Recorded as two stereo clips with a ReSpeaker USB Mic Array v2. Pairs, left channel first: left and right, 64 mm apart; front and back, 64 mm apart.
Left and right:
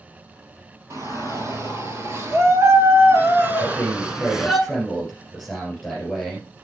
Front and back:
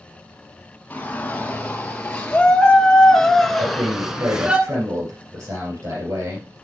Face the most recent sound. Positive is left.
turn(degrees=180)